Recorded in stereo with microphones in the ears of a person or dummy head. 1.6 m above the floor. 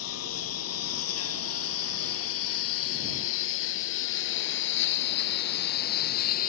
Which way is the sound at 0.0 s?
80° left.